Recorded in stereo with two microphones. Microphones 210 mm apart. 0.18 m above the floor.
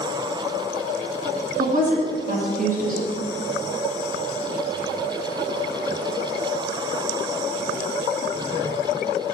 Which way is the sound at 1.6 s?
45° right (ahead or behind).